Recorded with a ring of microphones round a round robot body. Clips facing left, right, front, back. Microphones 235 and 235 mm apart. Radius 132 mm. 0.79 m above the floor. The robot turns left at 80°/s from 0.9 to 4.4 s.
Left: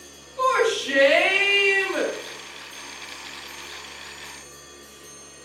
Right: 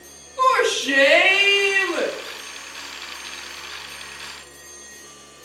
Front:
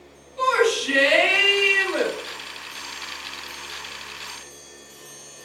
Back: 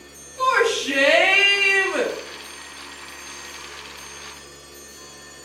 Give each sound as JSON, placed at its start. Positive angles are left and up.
{"t": 0.4, "sound": "a shout", "azimuth_deg": -35, "distance_m": 5.0}